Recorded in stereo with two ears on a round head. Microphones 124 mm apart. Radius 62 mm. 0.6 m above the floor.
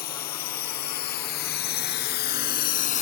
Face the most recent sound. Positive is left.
turn(degrees=55)  # may be behind; listen again after turning